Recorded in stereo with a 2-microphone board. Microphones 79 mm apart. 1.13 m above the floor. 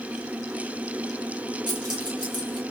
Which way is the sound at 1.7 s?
75° right (ahead or behind).